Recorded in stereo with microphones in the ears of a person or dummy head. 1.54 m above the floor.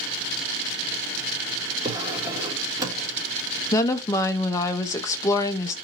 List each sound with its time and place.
1.8 s a drawer: 15° right (ahead or behind), 1.4 m
3.7 s a woman speaking: 20° left (ahead or behind), 0.5 m